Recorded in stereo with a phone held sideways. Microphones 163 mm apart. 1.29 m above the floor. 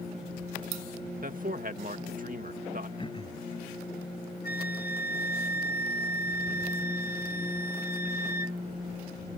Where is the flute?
70° left (ahead or behind).